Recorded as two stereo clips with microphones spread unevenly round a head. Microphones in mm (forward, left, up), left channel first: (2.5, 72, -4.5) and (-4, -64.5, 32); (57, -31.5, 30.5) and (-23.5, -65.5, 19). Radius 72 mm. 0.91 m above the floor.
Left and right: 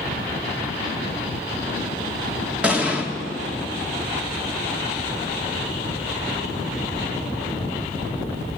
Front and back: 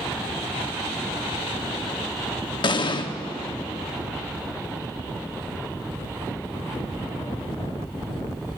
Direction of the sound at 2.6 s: 10° right.